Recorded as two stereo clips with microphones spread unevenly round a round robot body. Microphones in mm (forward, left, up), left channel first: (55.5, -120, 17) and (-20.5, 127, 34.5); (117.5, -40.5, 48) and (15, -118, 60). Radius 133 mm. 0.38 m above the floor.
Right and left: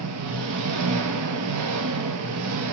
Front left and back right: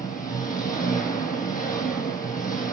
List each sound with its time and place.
0.0 s an engine running: 80° left, 1.8 m